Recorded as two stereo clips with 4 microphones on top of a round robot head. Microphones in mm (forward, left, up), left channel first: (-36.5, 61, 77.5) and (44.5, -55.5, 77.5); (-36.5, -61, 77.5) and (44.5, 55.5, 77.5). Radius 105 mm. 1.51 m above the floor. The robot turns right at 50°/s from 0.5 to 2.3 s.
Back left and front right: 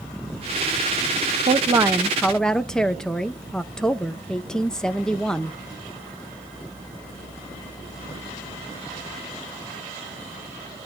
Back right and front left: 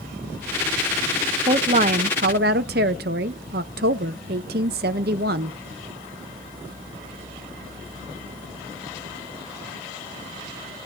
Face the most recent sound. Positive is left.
turn(degrees=40)